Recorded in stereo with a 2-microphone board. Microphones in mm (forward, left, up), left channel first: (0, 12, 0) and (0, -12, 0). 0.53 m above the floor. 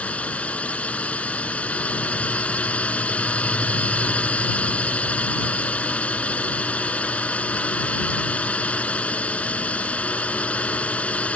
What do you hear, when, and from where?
0.0 s a drone: 65° left (ahead or behind)